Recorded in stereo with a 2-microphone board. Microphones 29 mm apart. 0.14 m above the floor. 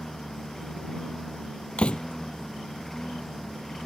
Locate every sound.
0.0 s a lawn mower: 10° left (ahead or behind)
1.8 s a door slam: 40° left (ahead or behind)